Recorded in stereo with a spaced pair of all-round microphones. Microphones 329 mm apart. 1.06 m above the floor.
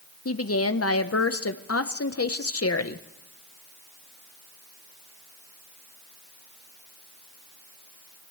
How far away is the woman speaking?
About 0.7 m.